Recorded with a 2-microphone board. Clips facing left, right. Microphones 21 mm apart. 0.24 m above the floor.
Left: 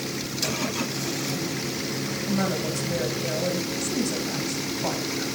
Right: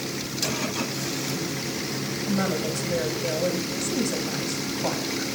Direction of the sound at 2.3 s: Centre (ahead or behind).